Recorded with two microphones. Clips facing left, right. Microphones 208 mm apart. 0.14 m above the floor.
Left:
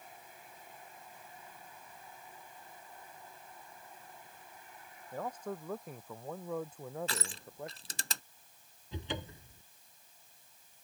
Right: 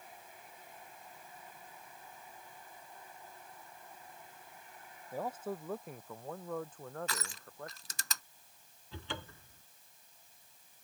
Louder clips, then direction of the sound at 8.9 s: Left 4 dB; 20° left (ahead or behind).